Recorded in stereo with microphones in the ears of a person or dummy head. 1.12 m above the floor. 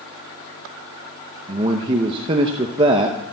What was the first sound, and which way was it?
A man speaking, 25° right (ahead or behind).